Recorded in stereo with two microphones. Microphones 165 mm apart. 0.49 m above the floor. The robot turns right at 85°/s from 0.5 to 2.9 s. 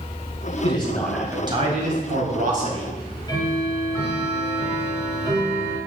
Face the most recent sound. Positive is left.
turn(degrees=25)  # may be behind; listen again after turning